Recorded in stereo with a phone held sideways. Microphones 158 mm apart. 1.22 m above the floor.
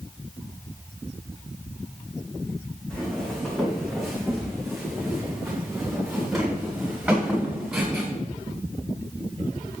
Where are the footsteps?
5° left (ahead or behind), 4.5 m; by 8.1 s 5° right (ahead or behind), 9 m.